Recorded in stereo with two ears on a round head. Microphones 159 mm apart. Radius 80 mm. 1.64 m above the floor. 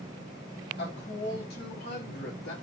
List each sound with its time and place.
0.8 s a woman speaking: 65° left (ahead or behind), 3 m